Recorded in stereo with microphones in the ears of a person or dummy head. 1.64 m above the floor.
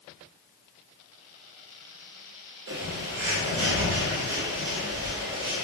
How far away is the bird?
About 0.6 m.